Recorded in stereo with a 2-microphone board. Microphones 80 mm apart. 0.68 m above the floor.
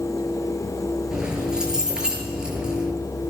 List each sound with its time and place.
1.1 s keys jangling: 10° right (ahead or behind), 8 m